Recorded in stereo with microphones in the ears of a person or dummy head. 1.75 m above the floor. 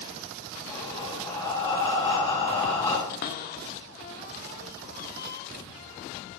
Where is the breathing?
35° left (ahead or behind), 4.5 m.